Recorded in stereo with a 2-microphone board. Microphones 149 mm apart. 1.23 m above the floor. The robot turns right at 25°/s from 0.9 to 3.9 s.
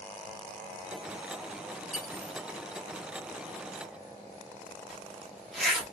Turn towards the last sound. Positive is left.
turn(degrees=0)  # may be behind; listen again after turning